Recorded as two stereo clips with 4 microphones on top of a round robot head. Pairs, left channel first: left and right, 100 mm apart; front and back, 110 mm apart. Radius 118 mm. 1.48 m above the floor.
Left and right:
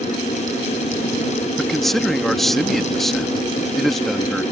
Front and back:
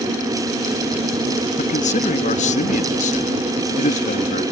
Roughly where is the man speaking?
Ahead.